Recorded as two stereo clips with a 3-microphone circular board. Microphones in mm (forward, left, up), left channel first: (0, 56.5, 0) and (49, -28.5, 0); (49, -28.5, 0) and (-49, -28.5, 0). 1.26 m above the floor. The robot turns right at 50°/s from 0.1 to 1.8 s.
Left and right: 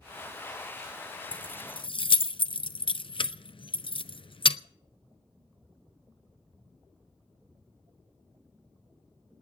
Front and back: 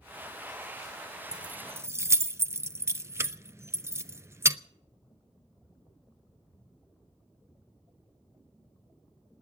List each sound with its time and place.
1.3 s keys jangling: 100° left, 0.6 m; by 4.6 s 120° left, 0.6 m